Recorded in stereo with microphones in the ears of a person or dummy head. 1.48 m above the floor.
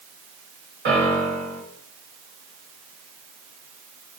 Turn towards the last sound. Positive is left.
turn(degrees=-50)  # may be behind; listen again after turning